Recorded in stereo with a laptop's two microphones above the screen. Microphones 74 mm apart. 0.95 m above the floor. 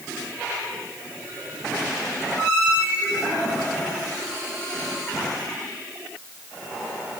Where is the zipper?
No zipper in this recording.